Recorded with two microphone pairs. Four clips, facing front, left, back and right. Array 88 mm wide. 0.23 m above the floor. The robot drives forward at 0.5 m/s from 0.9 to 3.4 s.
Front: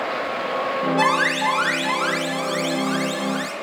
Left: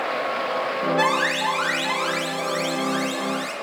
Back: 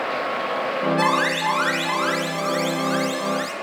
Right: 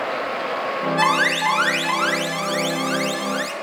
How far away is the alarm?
About 4.5 m.